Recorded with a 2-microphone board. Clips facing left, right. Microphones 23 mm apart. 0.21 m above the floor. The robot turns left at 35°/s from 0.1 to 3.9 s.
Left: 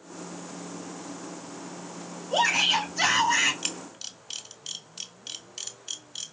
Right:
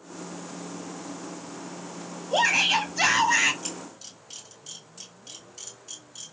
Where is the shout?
20° right (ahead or behind), 1.3 m.